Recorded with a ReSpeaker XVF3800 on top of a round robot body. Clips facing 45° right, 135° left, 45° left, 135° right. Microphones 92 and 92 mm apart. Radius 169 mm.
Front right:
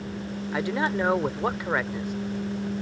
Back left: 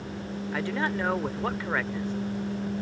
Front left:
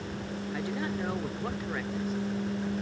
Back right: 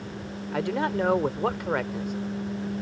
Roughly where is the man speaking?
Behind right.